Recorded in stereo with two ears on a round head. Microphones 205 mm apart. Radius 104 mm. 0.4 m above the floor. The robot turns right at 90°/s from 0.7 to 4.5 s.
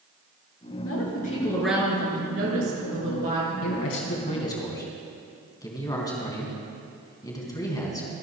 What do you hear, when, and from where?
0.8 s a woman speaking: 105° left, 4.5 m; by 3.5 s 15° right, 4.5 m
3.6 s a man speaking: 80° left, 3 m; by 8.2 s 160° left, 3 m